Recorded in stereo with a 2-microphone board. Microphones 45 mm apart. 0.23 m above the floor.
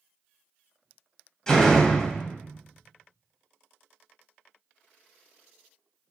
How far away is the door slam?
About 0.7 m.